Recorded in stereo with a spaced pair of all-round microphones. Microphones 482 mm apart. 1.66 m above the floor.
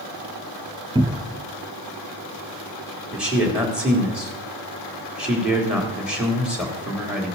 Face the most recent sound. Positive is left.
turn(degrees=0)  # may be behind; listen again after turning